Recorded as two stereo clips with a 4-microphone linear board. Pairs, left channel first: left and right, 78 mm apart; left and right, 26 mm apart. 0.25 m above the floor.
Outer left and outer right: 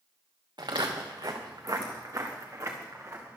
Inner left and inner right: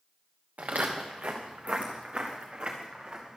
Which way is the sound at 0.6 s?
70° right (ahead or behind).